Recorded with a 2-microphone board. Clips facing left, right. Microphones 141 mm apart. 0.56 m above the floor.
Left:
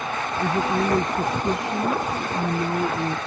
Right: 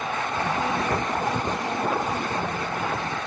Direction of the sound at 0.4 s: 80° left.